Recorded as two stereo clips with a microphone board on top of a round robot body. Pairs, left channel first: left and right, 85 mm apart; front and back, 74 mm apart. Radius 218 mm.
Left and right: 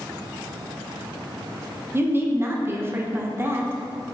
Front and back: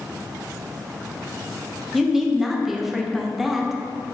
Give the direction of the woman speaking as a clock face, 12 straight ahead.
3 o'clock.